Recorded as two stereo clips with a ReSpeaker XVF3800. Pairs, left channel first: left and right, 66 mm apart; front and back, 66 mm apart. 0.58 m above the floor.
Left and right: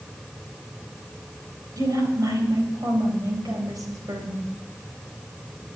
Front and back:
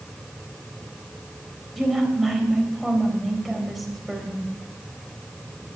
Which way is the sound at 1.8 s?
95° right.